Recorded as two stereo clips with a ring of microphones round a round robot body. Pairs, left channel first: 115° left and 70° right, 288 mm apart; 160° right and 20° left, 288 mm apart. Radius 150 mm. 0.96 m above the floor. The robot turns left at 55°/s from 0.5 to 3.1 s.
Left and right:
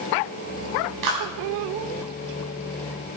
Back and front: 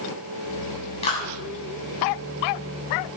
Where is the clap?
85° right, 8 m; by 1.2 s 95° right, 8 m.